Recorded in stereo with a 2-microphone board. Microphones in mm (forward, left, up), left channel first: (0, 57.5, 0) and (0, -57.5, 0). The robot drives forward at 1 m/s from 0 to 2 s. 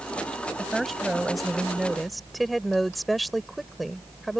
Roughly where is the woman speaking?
Centre.